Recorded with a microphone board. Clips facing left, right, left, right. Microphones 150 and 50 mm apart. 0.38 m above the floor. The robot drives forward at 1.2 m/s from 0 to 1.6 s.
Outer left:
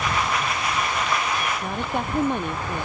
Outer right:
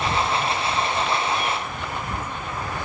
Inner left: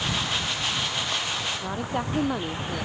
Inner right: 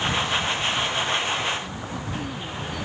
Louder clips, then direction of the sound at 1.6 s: Outer left 4 dB, inner left 4 dB; 60° left (ahead or behind).